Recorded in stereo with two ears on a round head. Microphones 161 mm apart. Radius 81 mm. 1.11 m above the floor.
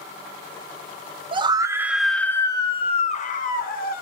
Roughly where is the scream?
Right.